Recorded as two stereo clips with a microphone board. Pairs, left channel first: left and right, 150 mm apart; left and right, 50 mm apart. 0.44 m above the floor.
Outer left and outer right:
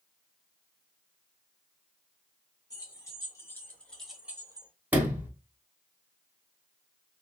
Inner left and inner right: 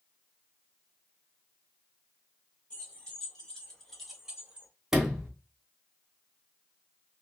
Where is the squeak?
I don't hear a squeak.